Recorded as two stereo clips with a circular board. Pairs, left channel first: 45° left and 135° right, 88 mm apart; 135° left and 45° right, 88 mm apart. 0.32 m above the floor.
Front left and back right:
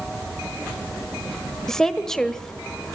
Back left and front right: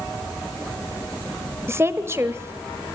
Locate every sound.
1.7 s a woman speaking: 35° right, 1.2 m